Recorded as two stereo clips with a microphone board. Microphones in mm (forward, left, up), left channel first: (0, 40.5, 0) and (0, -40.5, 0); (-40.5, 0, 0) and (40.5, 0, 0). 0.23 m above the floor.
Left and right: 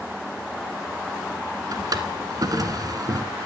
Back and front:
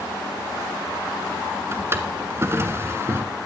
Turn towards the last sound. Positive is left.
turn(degrees=-55)